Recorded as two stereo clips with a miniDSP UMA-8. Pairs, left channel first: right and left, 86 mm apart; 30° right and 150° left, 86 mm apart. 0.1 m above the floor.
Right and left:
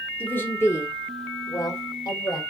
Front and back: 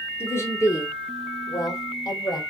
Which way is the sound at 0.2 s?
40° right.